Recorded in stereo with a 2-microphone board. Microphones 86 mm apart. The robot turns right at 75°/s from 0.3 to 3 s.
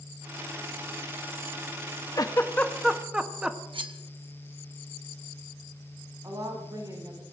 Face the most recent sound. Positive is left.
turn(degrees=-40)  # may be behind; listen again after turning